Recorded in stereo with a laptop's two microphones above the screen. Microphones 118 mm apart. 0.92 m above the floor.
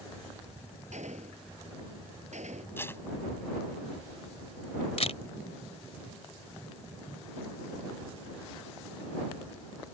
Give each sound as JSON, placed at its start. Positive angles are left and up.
{"t": 0.9, "sound": "a gunshot", "side_deg": -85}
{"t": 2.8, "sound": "tape being pulled", "side_deg": 20}
{"t": 5.0, "sound": "a camera shutter", "side_deg": 65}